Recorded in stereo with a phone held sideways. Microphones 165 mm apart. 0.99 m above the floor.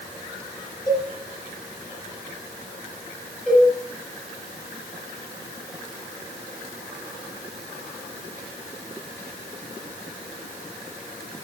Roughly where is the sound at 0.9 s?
Left.